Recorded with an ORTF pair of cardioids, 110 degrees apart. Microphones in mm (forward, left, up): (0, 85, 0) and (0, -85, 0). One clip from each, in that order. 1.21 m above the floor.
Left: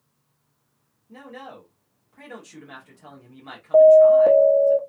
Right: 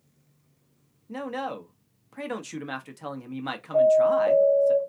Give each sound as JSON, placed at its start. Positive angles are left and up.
{"t": 1.1, "sound": "a man speaking", "azimuth_deg": -60, "distance_m": 1.0}
{"t": 3.7, "sound": "an alarm", "azimuth_deg": 65, "distance_m": 1.1}